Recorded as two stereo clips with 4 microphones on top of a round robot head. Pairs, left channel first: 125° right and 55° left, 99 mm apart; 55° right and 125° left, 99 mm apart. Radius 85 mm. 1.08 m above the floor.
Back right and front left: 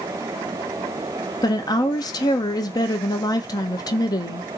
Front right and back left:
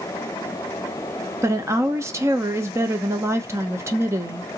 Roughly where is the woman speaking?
Behind.